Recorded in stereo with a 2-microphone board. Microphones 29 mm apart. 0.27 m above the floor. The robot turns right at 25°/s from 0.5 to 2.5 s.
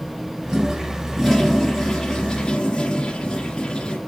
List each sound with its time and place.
0.5 s a toilet flushing: 20° right, 2.5 m; by 4.0 s 30° left, 2.5 m